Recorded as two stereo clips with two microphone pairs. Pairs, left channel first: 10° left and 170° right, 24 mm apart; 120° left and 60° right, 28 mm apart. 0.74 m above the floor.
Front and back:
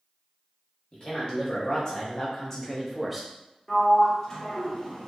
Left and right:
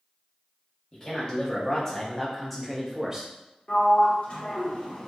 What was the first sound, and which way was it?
A man speaking, 65° left.